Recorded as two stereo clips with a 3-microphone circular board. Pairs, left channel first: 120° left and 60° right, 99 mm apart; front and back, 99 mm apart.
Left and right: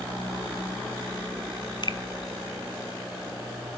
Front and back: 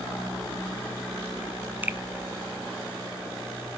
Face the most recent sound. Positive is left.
turn(degrees=115)